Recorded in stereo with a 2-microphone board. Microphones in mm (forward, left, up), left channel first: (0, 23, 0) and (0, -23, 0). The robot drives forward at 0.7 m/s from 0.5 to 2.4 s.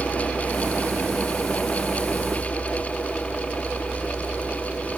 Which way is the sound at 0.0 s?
20° left (ahead or behind).